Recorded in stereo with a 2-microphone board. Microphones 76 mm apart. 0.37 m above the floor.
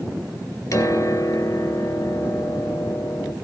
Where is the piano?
40° left (ahead or behind), 2.0 m.